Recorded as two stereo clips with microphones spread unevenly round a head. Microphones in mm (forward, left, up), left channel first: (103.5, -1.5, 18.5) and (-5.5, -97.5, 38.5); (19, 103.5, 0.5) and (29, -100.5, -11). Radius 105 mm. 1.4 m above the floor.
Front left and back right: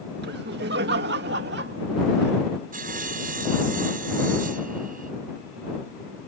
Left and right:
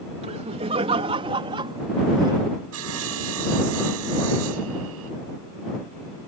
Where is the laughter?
150° right; by 2.4 s 160° right.